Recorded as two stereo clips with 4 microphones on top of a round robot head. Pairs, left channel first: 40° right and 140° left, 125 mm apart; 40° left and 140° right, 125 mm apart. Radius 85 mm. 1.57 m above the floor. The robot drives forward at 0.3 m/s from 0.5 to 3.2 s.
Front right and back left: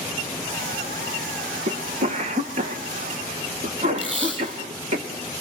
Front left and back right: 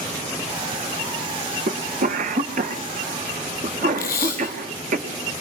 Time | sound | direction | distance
1.7 | a cough | 175° right | 1.2 m
4.0 | tape being pulled | 60° left | 4 m